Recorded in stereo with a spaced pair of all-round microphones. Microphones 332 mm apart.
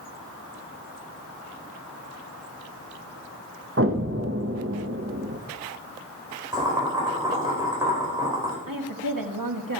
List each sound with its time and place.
3.8 s an explosion: 40° right (ahead or behind), 1.1 m
6.5 s boiling: 10° right (ahead or behind), 4 m
8.7 s a woman speaking: 75° right (ahead or behind), 1.4 m